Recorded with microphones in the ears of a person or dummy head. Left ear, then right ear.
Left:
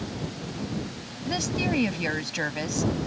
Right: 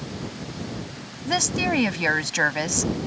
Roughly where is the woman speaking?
Right.